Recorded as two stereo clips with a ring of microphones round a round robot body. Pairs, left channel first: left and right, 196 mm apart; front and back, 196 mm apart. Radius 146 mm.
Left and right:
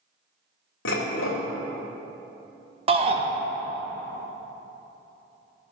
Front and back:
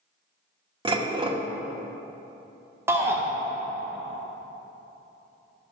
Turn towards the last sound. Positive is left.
turn(degrees=-115)